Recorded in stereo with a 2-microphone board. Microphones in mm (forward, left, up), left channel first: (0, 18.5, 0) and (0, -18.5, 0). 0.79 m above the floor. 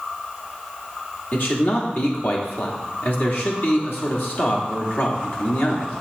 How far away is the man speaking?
About 1.4 m.